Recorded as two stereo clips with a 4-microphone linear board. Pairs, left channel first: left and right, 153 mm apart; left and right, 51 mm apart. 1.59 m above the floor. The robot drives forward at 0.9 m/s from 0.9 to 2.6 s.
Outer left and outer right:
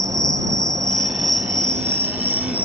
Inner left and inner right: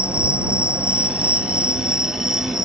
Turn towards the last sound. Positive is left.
turn(degrees=-10)  # may be behind; listen again after turning